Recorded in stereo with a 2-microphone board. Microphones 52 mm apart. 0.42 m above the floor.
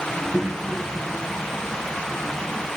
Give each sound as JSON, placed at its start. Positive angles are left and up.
{"t": 0.1, "sound": "a child speaking", "side_deg": 5, "distance_m": 3.5}